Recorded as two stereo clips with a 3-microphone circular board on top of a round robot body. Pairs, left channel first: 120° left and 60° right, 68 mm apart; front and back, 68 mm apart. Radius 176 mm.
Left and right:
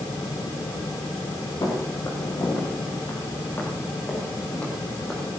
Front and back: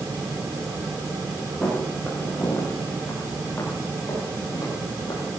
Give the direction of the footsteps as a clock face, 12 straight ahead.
9 o'clock.